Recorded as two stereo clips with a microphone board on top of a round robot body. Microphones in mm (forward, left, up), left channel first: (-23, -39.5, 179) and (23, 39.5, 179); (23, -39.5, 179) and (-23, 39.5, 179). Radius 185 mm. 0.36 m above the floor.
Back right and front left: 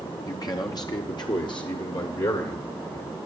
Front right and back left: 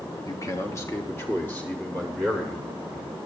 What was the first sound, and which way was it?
A man speaking, 95° right.